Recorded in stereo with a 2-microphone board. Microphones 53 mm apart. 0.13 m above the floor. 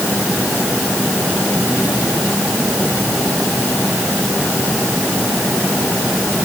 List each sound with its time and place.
Only background noise.